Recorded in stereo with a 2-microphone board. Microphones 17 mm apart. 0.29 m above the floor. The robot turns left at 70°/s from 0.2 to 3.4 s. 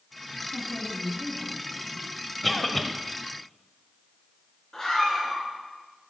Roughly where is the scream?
Left.